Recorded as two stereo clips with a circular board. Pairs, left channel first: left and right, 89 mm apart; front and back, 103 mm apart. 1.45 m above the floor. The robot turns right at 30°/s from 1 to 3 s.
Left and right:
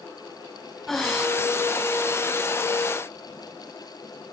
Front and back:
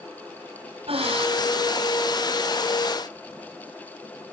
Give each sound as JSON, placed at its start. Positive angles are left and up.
{"t": 0.9, "sound": "breathing", "azimuth_deg": 175, "distance_m": 3.5}